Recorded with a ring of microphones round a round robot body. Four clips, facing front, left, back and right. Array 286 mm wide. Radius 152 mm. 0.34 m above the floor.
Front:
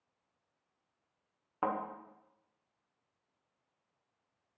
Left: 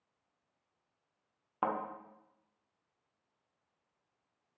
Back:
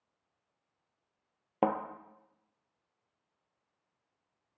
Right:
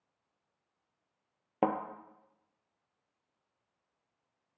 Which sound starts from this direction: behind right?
A thud, at 1.6 s.